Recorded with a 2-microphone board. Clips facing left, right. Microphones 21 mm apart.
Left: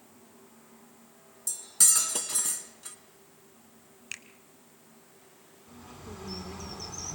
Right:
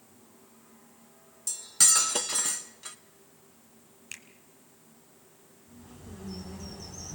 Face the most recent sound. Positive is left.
turn(degrees=55)  # may be behind; listen again after turning